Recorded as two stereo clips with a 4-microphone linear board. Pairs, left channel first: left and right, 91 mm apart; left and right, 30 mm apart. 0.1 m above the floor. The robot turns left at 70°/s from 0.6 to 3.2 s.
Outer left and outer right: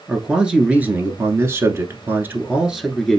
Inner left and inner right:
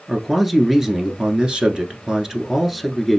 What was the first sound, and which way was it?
A man speaking, 10° right (ahead or behind).